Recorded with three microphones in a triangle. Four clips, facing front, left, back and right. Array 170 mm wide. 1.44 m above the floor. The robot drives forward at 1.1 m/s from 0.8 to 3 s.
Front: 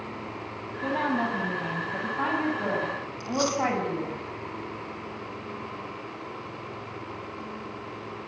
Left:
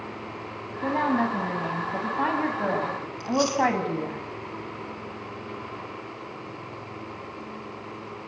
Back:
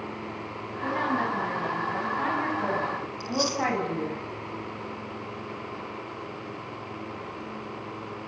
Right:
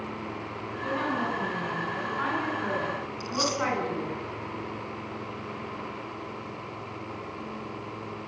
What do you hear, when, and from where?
0.8 s a woman speaking: 70° left, 9.5 m; by 4.2 s 85° left, 9 m
3.2 s chewing: 5° right, 2 m